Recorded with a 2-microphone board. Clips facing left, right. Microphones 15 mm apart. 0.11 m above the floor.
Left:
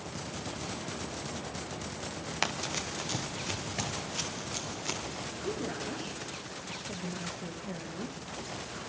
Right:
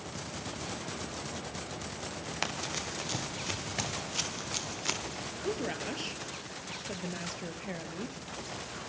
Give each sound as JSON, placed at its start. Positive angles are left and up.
{"t": 2.4, "sound": "running footsteps", "side_deg": 15, "distance_m": 2.5}
{"t": 5.3, "sound": "a woman speaking", "side_deg": -35, "distance_m": 2.5}